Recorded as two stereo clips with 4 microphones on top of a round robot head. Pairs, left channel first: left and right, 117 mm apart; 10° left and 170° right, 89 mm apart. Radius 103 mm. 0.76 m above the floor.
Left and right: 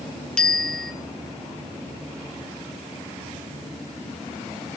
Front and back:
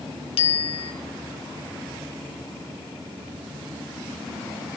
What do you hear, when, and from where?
0.4 s a bicycle bell: 10° left, 2.5 m